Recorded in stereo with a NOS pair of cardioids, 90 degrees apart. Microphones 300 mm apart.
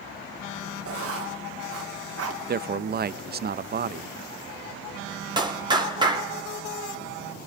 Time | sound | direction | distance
0.8 | writing | 50° right | 1.9 m
2.5 | a man speaking | 35° right | 0.6 m
5.4 | a clap | 15° right | 2.5 m